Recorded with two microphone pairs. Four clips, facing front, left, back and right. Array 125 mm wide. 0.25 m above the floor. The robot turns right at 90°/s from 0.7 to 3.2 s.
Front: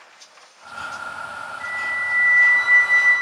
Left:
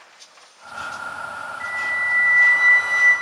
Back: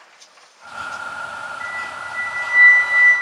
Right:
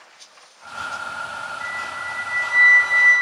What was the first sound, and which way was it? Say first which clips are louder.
A flute: left 3 dB, front 1 dB; 95° left.